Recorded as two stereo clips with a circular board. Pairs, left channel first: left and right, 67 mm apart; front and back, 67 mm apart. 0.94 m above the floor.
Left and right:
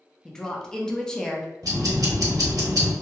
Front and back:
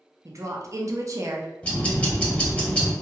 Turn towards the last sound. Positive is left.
turn(degrees=-70)